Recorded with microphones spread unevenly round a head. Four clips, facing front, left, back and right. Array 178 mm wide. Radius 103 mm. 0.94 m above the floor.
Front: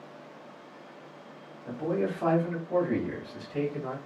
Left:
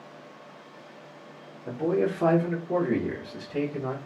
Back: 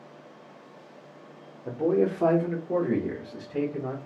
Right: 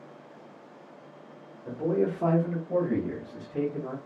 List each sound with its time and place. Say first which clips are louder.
1.6 s a man speaking: left 1 dB, back 6 dB; 165° left, 1.1 m; by 4.0 s 95° left, 1.6 m